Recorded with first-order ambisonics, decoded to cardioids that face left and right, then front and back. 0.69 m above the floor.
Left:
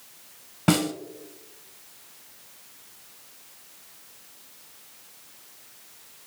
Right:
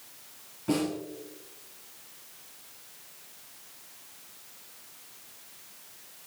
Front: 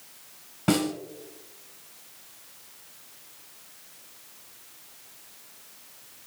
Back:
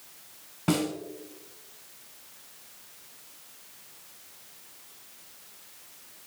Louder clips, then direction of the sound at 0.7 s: Left 5 dB, front 3 dB; 85° left.